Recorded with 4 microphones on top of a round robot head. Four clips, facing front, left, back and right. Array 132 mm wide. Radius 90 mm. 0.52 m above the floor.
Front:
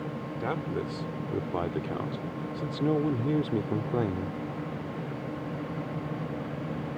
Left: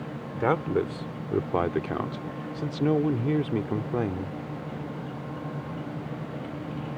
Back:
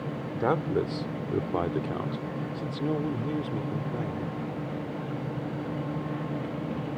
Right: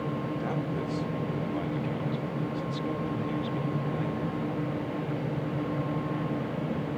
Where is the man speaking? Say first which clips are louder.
Left 6 dB, back 7 dB; 125° left; by 4.4 s 45° left.